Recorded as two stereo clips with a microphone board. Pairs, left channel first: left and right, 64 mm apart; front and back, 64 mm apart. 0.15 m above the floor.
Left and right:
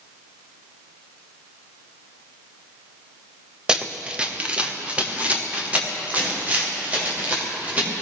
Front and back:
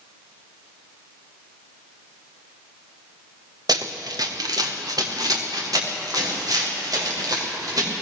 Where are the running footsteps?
170° right, 2 m; by 7.9 s 160° right, 8 m.